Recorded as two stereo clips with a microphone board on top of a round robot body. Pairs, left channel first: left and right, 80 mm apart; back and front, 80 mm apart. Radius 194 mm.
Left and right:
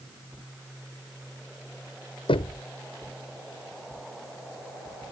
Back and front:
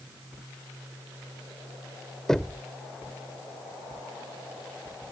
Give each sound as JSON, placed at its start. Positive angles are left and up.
{"t": 2.3, "sound": "knocking", "azimuth_deg": 95}